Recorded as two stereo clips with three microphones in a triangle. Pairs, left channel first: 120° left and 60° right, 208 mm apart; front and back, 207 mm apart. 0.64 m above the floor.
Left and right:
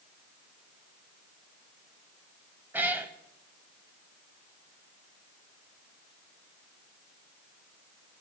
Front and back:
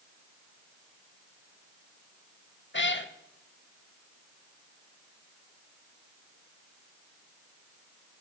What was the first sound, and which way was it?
A cat meowing, 20° left.